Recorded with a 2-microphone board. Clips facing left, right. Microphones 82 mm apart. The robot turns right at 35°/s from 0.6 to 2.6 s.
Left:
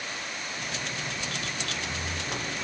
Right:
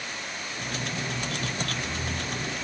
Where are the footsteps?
10° left (ahead or behind), 2.5 m; by 2.6 s 45° left (ahead or behind), 3 m.